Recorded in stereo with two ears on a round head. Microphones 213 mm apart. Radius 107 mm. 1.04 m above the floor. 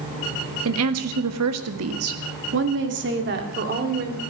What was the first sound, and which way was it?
A woman speaking, 65° right (ahead or behind).